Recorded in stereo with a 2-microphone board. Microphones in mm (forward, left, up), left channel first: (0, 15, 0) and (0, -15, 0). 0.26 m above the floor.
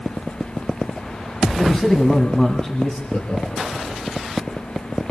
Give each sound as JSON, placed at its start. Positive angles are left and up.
{"t": 1.6, "sound": "a man speaking", "side_deg": 20, "distance_m": 1.7}
{"t": 3.1, "sound": "laughter", "side_deg": 50, "distance_m": 5.5}